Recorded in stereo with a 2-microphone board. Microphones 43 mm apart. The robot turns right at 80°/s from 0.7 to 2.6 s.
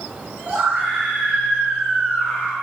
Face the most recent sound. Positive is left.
turn(degrees=95)